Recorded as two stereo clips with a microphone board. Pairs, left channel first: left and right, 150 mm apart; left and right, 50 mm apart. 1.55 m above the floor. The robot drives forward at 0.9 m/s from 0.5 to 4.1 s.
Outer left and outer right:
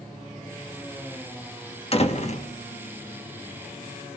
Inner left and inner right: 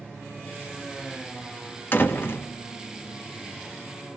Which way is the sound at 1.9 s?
40° left (ahead or behind).